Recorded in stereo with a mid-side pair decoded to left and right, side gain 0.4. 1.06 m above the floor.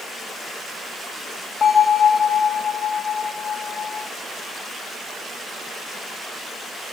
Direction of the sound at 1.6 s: 65° left.